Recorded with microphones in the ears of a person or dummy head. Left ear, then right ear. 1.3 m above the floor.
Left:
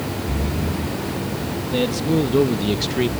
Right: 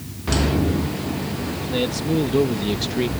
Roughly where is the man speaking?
Centre.